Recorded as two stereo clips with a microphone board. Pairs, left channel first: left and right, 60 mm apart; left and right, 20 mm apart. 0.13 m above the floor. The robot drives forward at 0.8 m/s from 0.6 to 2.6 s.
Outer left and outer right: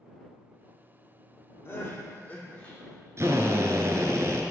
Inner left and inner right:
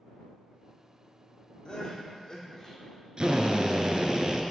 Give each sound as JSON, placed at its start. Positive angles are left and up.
{"t": 1.6, "sound": "crying", "side_deg": 35, "distance_m": 0.8}
{"t": 3.2, "sound": "a drill", "side_deg": -50, "distance_m": 0.7}